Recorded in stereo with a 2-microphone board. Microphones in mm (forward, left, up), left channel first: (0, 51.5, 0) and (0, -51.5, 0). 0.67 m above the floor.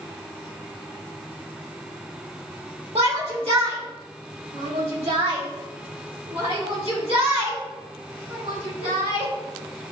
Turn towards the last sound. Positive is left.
turn(degrees=-75)  # may be behind; listen again after turning